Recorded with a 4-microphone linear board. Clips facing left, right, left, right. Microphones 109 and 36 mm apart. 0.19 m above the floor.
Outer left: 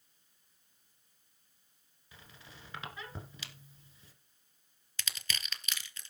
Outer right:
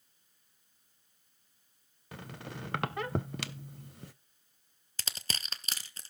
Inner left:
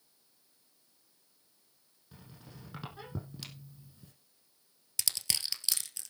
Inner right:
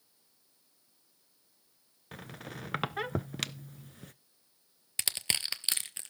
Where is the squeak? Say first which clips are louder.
Outer right 12 dB, inner right 10 dB; 75° right (ahead or behind), 0.5 m.